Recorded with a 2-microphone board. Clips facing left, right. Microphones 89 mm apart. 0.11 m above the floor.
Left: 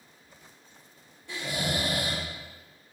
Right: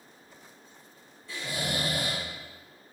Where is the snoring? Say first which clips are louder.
Left 2 dB; 70° left (ahead or behind), 1.9 m.